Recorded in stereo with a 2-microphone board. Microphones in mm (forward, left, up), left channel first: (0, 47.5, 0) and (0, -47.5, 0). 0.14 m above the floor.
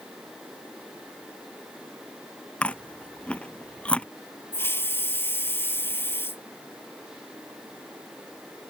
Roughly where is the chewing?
Centre.